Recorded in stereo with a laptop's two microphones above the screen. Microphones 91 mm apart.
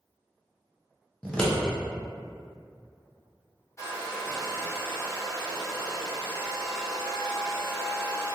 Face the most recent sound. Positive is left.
turn(degrees=35)  # may be behind; listen again after turning